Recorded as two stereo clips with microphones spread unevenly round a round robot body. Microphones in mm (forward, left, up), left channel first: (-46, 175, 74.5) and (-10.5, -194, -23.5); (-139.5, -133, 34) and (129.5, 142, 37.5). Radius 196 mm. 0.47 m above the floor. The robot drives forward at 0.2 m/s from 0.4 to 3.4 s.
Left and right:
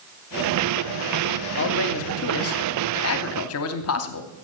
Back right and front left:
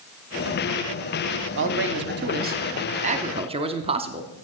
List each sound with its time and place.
1.6 s a man speaking: 40° left, 0.9 m; by 4.3 s 95° left, 0.9 m